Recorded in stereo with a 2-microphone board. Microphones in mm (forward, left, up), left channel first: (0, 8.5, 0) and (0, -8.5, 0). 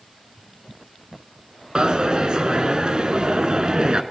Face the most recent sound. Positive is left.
turn(degrees=-65)  # may be behind; listen again after turning